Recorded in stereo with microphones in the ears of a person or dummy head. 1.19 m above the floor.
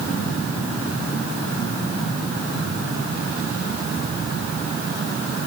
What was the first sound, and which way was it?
Only background noise.